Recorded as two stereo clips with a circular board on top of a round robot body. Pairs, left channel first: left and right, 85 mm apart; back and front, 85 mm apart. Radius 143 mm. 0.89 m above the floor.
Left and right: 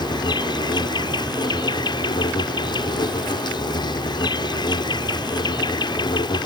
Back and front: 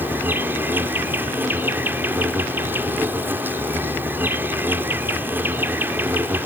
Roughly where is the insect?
Ahead left.